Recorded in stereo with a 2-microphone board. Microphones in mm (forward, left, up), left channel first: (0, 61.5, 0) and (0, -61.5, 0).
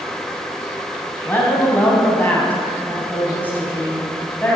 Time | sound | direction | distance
1.2 | a woman speaking | 15° left (ahead or behind) | 3.5 m